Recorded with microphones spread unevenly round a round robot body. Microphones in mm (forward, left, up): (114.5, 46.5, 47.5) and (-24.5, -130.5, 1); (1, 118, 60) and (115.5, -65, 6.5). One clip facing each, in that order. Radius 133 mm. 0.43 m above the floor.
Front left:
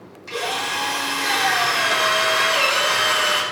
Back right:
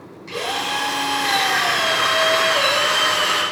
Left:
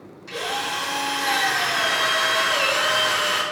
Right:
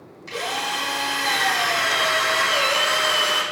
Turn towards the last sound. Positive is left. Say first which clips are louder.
# back right 1 dB, even
turn(degrees=0)